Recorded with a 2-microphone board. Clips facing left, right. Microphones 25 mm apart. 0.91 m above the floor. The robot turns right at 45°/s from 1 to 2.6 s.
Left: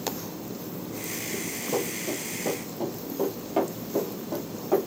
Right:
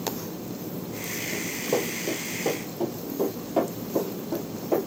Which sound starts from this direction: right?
Running footsteps, at 1.3 s.